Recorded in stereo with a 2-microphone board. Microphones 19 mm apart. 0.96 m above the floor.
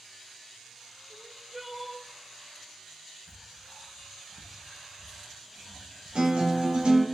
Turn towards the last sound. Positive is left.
turn(degrees=-75)  # may be behind; listen again after turning